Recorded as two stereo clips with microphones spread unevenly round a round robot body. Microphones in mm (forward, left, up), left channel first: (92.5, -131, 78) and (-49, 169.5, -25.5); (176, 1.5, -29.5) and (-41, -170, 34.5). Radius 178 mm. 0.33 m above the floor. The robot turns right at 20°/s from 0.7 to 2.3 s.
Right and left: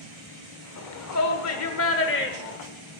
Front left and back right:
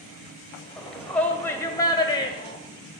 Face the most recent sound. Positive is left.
turn(degrees=-5)